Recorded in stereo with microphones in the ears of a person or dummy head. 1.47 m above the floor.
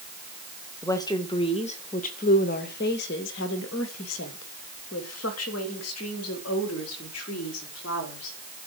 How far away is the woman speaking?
About 1.9 m.